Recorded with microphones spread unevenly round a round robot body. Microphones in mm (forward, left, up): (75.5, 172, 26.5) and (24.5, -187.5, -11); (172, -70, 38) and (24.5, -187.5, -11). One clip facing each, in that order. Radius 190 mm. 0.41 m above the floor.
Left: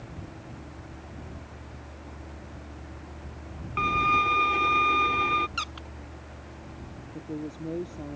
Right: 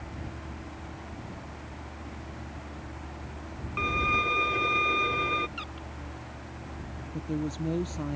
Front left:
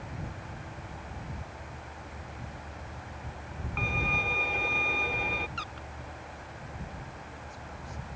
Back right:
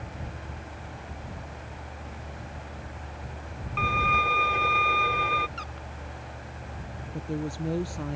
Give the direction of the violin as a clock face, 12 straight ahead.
7 o'clock.